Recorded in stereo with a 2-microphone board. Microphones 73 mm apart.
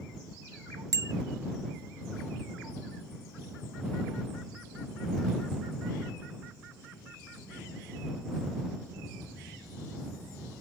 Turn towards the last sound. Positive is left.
turn(degrees=-60)  # may be behind; listen again after turning